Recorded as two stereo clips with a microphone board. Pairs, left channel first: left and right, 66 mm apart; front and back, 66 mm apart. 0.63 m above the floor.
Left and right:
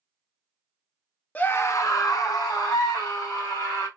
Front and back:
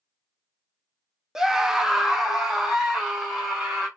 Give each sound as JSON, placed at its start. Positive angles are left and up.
{"t": 1.4, "sound": "a scream", "azimuth_deg": 110, "distance_m": 0.5}